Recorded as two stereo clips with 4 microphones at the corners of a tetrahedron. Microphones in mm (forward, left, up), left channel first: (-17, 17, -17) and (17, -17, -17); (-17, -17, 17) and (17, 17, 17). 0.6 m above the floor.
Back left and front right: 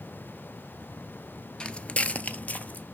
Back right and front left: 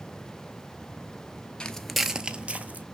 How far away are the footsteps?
About 0.6 m.